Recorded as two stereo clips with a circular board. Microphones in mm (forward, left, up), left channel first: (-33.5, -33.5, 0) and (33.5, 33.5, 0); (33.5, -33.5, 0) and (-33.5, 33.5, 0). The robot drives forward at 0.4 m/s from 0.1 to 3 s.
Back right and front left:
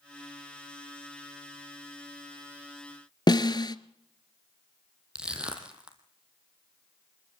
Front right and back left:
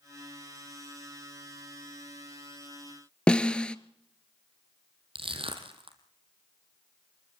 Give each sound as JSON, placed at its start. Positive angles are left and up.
{"t": 3.3, "sound": "a snare drum", "azimuth_deg": -120, "distance_m": 0.7}
{"t": 5.2, "sound": "crushing", "azimuth_deg": 125, "distance_m": 3.0}